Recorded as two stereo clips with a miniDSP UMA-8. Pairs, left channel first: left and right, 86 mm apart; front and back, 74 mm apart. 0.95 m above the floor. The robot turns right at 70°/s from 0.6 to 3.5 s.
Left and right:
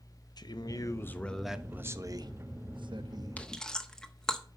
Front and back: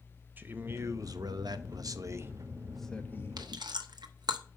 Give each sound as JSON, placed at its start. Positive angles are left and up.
{"t": 0.4, "sound": "a man speaking", "azimuth_deg": 120, "distance_m": 0.7}
{"t": 3.4, "sound": "chewing", "azimuth_deg": 160, "distance_m": 0.9}